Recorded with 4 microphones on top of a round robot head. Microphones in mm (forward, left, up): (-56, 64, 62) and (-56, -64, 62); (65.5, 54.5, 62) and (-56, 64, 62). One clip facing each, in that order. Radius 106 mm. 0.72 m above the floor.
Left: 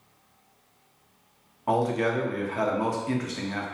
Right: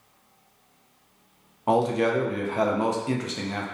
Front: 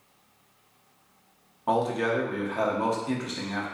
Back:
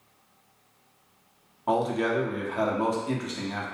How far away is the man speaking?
About 0.5 m.